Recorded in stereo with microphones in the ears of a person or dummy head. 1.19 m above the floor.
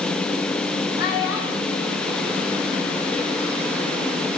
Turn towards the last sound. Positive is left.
turn(degrees=85)